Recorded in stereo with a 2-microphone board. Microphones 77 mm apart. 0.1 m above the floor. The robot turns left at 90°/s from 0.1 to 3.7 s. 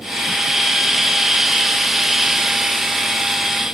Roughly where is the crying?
No crying in this recording.